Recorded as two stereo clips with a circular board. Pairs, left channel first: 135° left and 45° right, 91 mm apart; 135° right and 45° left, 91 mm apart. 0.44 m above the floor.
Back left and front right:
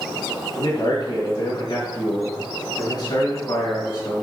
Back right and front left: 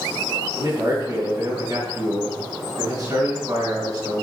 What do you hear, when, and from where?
0.6 s a man speaking: 100° left, 4 m